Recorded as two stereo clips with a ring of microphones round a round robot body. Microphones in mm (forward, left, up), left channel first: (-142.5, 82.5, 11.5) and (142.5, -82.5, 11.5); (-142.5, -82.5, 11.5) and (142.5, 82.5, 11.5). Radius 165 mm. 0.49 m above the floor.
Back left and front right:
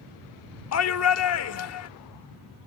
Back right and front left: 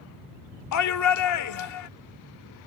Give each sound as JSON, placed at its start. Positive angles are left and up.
{"t": 0.7, "sound": "a shout", "azimuth_deg": -175}